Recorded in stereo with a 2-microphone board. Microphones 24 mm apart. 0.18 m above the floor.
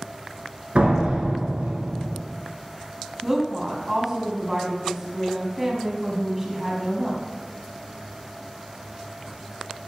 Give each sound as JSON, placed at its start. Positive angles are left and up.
{"t": 0.8, "sound": "a door slam", "side_deg": -60, "distance_m": 1.6}
{"t": 3.2, "sound": "a woman speaking", "side_deg": -15, "distance_m": 1.3}